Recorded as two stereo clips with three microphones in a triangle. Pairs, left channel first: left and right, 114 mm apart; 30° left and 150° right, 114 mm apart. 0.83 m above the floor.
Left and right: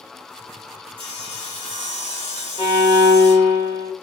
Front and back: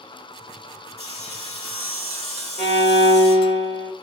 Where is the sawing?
135° right, 1.5 m.